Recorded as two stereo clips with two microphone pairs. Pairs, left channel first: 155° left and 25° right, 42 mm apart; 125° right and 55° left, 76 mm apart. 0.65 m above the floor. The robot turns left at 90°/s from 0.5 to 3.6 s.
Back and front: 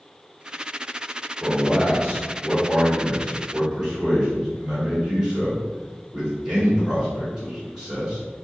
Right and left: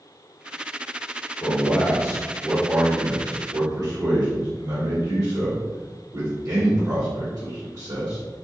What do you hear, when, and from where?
1.4 s a man speaking: 110° right, 1.5 m; by 8.2 s 50° left, 1.5 m